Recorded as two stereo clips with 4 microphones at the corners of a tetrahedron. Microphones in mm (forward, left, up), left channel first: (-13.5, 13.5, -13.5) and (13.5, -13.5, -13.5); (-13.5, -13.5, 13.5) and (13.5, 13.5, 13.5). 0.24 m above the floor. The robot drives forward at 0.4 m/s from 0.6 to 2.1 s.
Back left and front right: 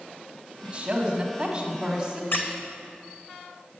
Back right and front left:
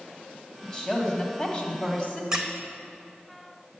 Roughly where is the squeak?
Behind left.